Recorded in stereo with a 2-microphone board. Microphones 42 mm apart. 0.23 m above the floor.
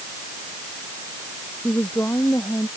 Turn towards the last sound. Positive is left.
turn(degrees=55)  # may be behind; listen again after turning